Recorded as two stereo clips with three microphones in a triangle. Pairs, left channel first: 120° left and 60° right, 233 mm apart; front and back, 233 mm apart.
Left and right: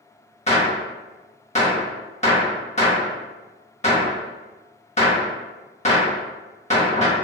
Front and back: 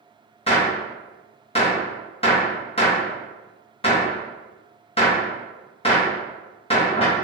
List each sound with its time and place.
0.5 s a gunshot: 65° left, 0.8 m